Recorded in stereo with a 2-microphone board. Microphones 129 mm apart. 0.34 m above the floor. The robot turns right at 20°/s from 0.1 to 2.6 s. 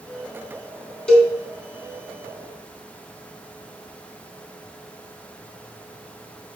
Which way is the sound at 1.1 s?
5° left (ahead or behind).